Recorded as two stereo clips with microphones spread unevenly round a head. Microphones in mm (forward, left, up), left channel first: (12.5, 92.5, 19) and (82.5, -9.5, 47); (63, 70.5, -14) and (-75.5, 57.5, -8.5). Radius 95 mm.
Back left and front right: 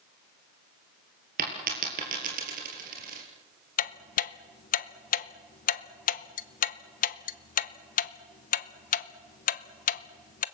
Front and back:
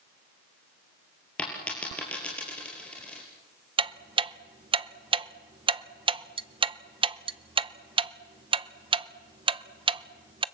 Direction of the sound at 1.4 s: 80° right.